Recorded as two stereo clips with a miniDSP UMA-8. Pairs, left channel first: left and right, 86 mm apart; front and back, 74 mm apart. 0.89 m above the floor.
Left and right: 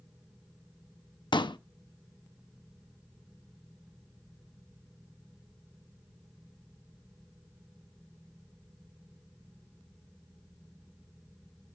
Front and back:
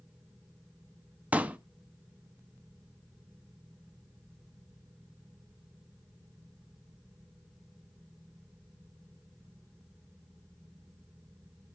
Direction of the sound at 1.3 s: 110° left.